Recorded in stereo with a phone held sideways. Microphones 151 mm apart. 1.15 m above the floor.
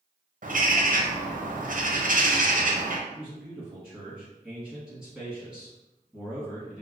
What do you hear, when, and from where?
0.4 s a bird: 65° right (ahead or behind), 0.5 m
3.1 s a man speaking: 15° left (ahead or behind), 1.1 m